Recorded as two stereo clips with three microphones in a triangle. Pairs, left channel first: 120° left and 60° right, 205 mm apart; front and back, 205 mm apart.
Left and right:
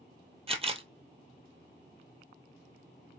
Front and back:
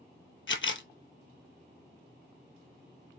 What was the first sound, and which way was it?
A camera shutter, 5° right.